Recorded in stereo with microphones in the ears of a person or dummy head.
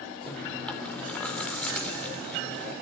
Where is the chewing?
10° left (ahead or behind), 2 m.